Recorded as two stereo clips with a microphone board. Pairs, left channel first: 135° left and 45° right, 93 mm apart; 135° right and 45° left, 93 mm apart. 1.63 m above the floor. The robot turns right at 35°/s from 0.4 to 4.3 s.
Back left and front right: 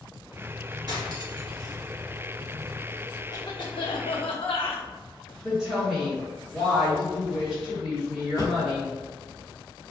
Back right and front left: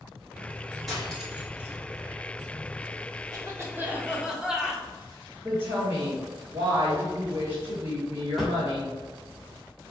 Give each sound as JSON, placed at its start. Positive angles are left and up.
{"t": 0.9, "sound": "cutlery clinking", "azimuth_deg": -45, "distance_m": 1.4}
{"t": 3.3, "sound": "a cough", "azimuth_deg": 90, "distance_m": 1.1}
{"t": 5.4, "sound": "a woman speaking", "azimuth_deg": 45, "distance_m": 1.7}
{"t": 8.4, "sound": "a drawer", "azimuth_deg": 135, "distance_m": 1.0}